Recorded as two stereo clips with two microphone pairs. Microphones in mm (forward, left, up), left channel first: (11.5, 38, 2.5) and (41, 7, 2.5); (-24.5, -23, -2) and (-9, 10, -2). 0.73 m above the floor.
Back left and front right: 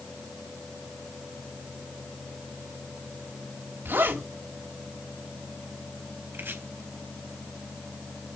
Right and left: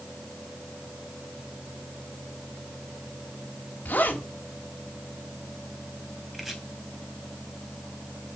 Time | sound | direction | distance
3.9 | a zipper | 75° right | 4 m
6.3 | chopping | 20° right | 4.5 m